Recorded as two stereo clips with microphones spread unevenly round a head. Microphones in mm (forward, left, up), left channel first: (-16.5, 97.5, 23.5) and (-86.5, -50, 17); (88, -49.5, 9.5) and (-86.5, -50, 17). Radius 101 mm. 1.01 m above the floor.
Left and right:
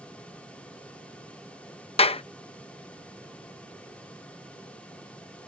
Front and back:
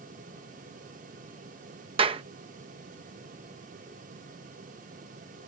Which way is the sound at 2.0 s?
120° left.